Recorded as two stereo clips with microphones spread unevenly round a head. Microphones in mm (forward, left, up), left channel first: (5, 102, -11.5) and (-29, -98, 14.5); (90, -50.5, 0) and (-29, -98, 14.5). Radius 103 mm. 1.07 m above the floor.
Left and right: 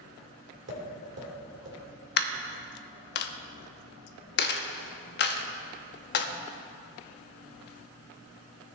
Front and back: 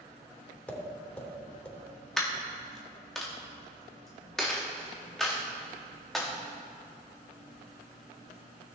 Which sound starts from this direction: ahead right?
Tapping, at 0.7 s.